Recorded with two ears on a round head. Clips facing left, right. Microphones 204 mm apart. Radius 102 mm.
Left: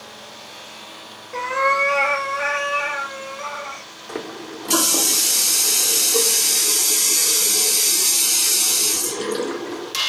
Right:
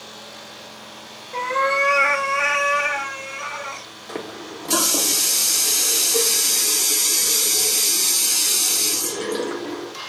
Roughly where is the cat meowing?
Centre.